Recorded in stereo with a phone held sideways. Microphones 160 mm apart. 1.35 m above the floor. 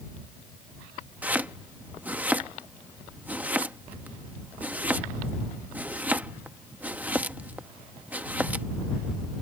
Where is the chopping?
10° right (ahead or behind).